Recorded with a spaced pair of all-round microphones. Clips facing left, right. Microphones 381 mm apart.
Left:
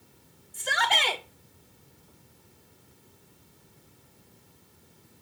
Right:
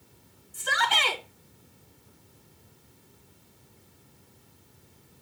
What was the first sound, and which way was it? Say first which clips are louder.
A shout: left 1 dB; 20° right (ahead or behind).